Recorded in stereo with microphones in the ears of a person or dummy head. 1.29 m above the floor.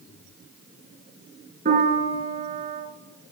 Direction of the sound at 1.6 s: 55° right (ahead or behind).